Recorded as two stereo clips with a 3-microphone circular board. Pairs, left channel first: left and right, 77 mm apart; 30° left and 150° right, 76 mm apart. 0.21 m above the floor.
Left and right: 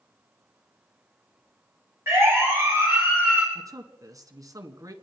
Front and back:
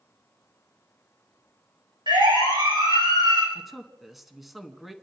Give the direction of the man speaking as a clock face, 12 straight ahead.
2 o'clock.